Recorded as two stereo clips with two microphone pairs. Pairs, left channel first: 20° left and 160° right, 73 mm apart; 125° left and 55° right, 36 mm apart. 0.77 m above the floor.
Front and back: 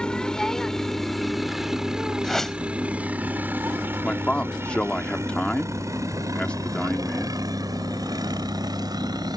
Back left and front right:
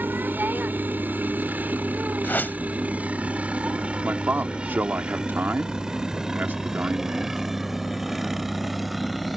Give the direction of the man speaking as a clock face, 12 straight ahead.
2 o'clock.